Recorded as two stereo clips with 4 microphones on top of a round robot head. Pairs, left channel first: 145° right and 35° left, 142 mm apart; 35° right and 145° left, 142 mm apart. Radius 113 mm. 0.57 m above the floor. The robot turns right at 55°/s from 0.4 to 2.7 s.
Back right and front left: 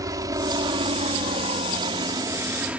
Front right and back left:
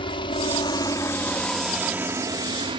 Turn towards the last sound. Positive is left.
turn(degrees=110)